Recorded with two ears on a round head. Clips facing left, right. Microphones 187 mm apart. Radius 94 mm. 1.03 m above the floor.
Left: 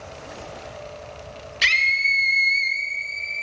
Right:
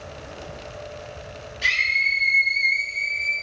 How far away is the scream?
About 1.4 m.